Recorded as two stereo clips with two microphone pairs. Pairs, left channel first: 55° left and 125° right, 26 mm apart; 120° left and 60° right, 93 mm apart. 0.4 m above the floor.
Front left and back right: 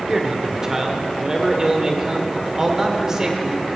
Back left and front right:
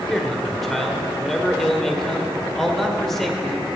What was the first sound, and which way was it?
A man speaking, 155° right.